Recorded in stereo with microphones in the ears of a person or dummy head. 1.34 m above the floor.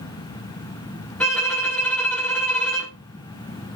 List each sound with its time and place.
1.2 s a violin: 5° left (ahead or behind), 1.3 m